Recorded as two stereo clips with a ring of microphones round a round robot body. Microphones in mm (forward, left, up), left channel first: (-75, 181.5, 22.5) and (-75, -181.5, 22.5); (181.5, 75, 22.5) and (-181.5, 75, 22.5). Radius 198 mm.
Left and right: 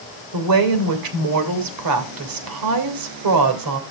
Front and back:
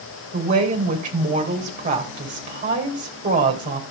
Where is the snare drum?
I don't hear a snare drum.